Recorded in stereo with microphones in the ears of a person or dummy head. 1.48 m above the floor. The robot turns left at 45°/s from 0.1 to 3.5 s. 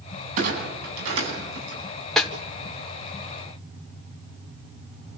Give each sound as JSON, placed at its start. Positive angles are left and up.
{"t": 0.4, "sound": "a clunk", "side_deg": -45, "distance_m": 10.0}
{"t": 2.2, "sound": "a snare drum", "side_deg": 5, "distance_m": 1.9}